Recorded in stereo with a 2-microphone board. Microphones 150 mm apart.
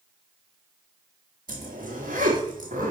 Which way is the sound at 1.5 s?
85° right.